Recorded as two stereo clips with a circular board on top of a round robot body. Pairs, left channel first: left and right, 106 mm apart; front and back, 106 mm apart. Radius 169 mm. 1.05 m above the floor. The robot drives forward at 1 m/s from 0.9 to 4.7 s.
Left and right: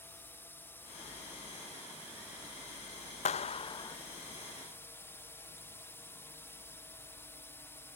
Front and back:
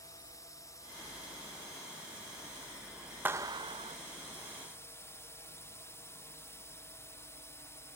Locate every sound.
0.0 s a drone: 35° left; by 8.0 s 40° left
3.2 s a clap: 105° left; by 4.0 s 145° left